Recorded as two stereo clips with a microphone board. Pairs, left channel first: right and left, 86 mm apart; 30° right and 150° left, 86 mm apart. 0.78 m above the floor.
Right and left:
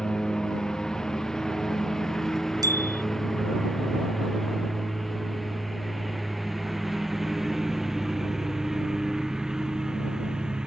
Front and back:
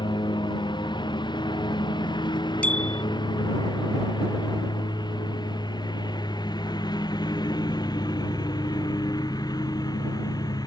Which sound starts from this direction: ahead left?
A bicycle bell, at 2.6 s.